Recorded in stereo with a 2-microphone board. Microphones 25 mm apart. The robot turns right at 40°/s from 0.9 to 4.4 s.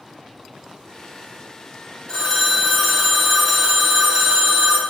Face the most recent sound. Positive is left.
turn(degrees=-145)